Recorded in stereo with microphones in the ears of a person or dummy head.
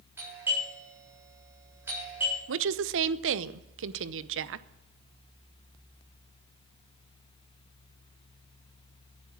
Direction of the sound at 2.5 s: 65° right (ahead or behind).